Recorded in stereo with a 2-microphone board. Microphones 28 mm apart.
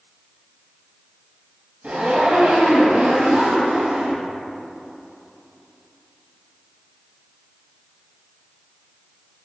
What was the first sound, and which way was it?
A zipper, 65° right (ahead or behind).